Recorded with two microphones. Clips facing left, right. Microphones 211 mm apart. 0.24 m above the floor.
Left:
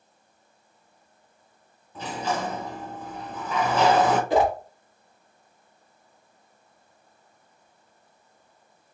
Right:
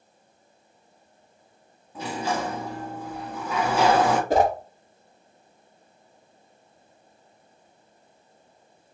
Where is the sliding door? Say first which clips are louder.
Right 1 dB; 10° right (ahead or behind), 0.8 m.